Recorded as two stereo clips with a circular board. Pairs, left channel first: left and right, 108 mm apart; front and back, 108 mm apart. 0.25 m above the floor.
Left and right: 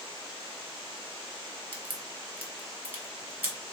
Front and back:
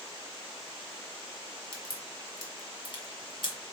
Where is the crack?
20° right, 1.5 m.